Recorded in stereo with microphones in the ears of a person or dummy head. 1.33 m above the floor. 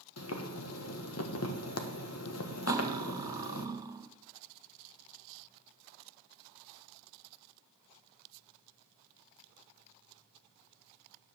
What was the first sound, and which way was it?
Boiling, 80° left.